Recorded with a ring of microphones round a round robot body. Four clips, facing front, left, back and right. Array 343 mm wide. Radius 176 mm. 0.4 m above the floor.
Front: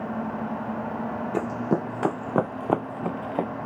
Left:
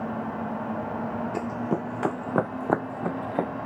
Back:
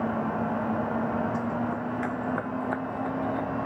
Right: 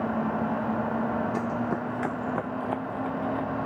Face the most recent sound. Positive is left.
turn(degrees=50)